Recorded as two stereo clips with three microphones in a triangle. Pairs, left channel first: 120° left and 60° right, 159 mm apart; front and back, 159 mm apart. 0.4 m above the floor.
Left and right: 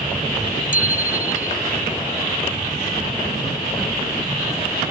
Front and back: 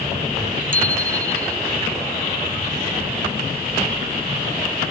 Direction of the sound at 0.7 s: 150° left.